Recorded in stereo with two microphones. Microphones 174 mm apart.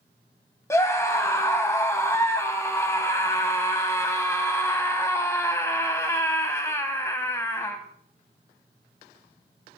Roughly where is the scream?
Centre.